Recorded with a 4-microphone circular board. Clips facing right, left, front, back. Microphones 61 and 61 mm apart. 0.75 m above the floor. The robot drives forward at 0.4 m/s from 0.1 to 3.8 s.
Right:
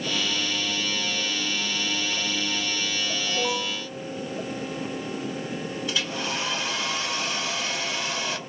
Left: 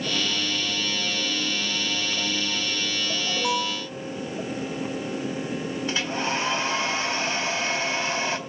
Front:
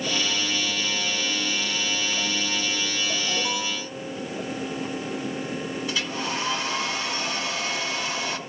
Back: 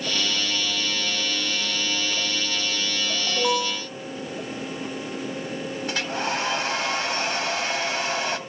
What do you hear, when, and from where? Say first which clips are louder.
3.3 s an alarm: left 2 dB, back 4 dB; 160° left, 5.5 m
5.9 s a hair dryer: left 3 dB, back 5 dB; 145° left, 3 m